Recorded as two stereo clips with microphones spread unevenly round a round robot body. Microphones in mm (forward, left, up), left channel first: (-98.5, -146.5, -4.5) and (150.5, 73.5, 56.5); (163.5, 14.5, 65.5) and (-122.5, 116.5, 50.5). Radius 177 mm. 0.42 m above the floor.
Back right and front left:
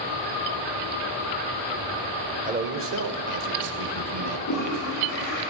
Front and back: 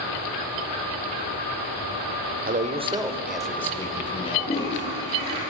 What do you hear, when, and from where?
2.5 s a man speaking: 110° left, 1.8 m; by 5.3 s 40° left, 3.5 m
4.3 s a toilet flushing: 95° right, 7.5 m